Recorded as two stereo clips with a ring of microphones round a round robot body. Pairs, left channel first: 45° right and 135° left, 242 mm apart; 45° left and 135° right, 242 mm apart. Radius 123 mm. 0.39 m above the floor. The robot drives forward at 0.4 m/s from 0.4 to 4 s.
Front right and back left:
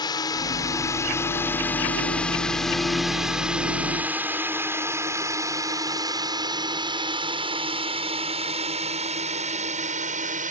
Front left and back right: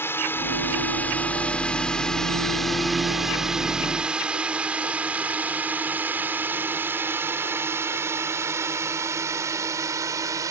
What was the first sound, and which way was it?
A drone, 15° right.